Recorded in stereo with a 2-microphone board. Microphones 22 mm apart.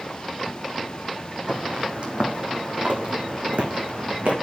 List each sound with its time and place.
1.5 s footsteps: 60° right (ahead or behind), 3.5 m; by 4.3 s 75° right (ahead or behind), 3.5 m